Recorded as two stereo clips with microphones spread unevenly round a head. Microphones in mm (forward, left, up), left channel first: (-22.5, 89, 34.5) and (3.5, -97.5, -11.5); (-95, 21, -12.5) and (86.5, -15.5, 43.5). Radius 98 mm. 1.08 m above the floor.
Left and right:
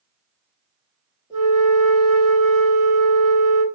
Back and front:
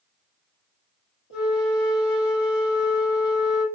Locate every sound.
1.3 s a flute: 160° left, 1.7 m